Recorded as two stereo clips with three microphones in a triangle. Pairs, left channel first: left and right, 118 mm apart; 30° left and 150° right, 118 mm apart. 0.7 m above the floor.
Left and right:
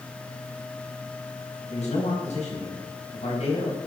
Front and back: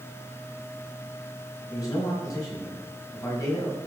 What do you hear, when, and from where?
1.7 s a man speaking: 85° left, 4.5 m